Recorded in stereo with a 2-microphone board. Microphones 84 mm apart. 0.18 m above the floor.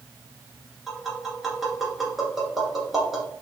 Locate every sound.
0.9 s tapping: centre (ahead or behind), 1.4 m